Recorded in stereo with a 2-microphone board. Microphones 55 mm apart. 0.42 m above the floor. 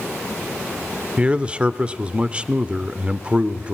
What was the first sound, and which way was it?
A man speaking, 25° right (ahead or behind).